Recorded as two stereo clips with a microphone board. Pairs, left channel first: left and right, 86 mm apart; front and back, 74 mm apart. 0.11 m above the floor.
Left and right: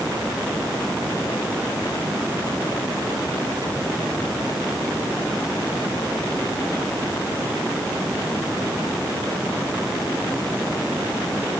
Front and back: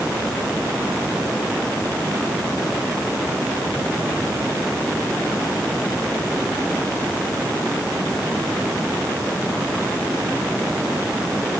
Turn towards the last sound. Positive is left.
No sound to turn to.